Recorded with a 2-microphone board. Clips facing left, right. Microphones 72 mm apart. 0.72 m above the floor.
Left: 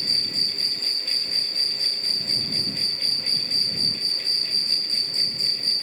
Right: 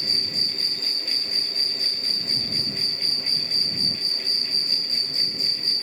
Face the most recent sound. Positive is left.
turn(degrees=35)  # may be behind; listen again after turning